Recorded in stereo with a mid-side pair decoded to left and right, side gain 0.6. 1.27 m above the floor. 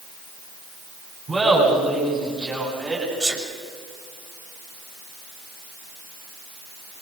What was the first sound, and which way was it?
Laughter, 25° right.